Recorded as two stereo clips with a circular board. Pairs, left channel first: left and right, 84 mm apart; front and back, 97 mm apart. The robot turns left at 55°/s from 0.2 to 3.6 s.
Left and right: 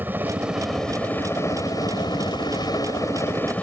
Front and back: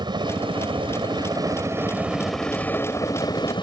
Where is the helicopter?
155° right; by 3.6 s 20° left.